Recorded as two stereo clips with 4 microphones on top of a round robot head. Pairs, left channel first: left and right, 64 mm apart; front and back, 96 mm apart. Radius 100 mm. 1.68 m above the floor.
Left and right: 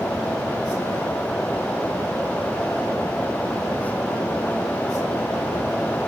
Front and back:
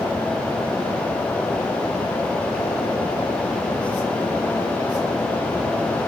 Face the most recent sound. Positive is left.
No sound to turn to.